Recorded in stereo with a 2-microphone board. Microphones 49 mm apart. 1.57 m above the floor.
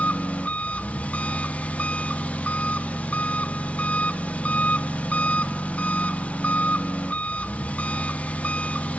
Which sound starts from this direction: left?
An engine running, at 0.0 s.